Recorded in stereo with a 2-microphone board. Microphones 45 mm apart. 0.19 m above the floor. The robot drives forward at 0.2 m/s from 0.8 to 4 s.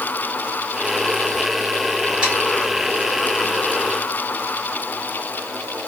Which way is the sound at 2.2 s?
20° right (ahead or behind).